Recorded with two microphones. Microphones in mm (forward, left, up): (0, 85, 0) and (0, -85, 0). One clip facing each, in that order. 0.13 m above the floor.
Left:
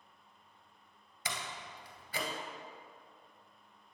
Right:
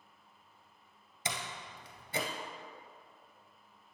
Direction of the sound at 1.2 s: 25° right (ahead or behind).